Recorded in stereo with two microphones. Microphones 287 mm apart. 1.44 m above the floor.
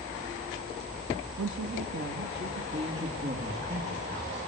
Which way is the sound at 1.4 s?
75° right (ahead or behind).